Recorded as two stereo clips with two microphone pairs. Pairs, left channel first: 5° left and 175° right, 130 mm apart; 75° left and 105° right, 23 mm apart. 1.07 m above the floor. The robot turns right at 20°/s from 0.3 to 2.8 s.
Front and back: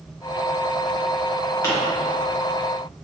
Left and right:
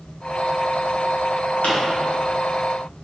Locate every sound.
1.6 s a pop: 75° left, 1.2 m